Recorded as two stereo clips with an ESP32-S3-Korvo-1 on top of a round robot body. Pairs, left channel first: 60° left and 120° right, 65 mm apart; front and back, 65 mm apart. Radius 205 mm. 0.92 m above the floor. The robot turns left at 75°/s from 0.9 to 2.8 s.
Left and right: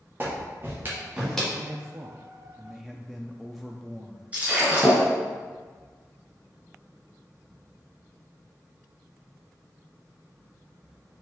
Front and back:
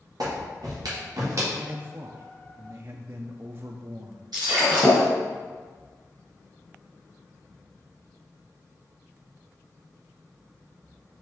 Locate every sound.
0.2 s a clap: straight behind, 1.6 m; by 1.4 s 140° left, 1.6 m
1.5 s a man speaking: 115° right, 0.6 m; by 4.3 s 150° left, 0.6 m
4.3 s breaking glass: 175° left, 1.0 m